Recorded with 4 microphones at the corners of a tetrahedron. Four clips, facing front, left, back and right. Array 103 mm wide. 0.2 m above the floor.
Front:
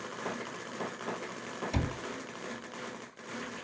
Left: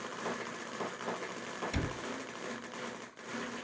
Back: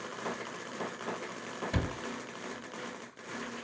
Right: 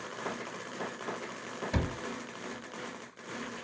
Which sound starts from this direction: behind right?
A cupboard door, at 1.7 s.